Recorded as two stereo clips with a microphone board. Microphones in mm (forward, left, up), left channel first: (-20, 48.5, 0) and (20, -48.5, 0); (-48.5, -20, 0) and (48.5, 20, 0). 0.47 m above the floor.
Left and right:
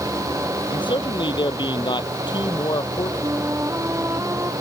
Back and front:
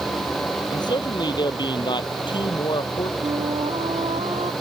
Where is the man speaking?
155° left; by 3.1 s 160° left.